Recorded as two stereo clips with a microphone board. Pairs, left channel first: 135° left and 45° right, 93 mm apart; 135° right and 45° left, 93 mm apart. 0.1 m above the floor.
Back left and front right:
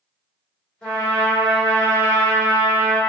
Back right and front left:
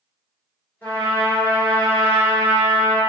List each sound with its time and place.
0.8 s a trumpet: 165° right, 1.3 m